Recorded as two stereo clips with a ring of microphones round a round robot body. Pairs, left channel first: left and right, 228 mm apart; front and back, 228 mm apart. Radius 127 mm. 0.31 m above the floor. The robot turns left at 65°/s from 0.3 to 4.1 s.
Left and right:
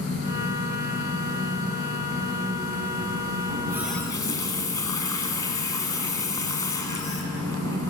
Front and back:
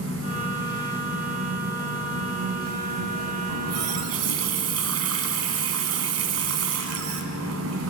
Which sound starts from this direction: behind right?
A running tap, at 3.5 s.